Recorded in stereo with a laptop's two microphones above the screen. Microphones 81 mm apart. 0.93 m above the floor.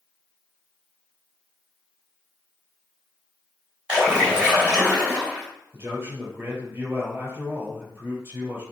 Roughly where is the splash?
Centre.